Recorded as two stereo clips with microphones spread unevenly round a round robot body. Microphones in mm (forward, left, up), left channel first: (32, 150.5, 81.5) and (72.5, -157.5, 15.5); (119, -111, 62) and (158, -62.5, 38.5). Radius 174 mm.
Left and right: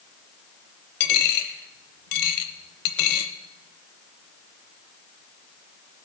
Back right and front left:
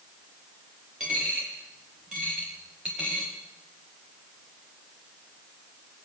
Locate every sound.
1.0 s a dropped coin: 135° left, 1.0 m